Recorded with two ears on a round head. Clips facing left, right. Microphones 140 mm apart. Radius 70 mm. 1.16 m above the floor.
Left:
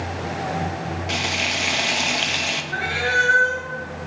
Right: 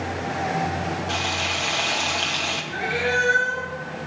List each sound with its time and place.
1.1 s frying: 20° left (ahead or behind), 1.3 m
2.7 s a cat meowing: 60° left (ahead or behind), 5.5 m